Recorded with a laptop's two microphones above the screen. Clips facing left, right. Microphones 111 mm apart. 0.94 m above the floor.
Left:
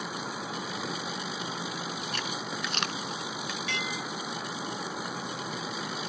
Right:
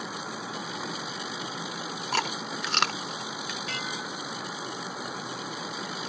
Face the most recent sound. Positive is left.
turn(degrees=-40)  # may be behind; listen again after turning